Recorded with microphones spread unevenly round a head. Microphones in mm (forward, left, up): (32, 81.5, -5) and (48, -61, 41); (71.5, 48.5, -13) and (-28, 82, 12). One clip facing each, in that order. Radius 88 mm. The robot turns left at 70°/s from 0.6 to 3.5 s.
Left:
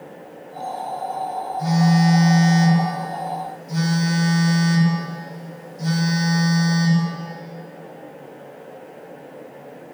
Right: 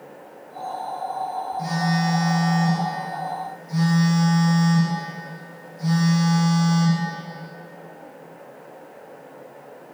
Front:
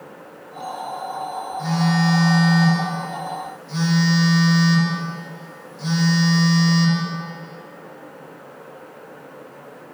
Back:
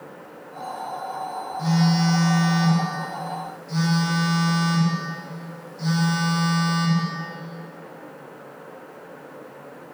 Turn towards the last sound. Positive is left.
turn(degrees=85)